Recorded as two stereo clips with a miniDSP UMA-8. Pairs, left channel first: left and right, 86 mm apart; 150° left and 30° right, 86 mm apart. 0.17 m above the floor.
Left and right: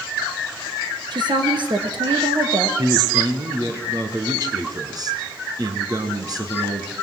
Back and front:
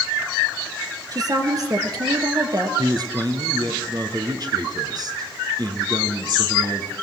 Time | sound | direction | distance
1.1 | a woman speaking | 70° right | 2.5 m
2.8 | a man speaking | 60° right | 2.5 m